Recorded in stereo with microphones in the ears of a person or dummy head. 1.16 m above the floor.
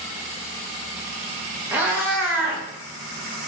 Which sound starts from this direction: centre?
A cat meowing, at 1.7 s.